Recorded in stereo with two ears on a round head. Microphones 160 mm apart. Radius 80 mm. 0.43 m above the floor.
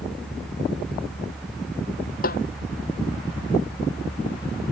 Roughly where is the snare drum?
Left.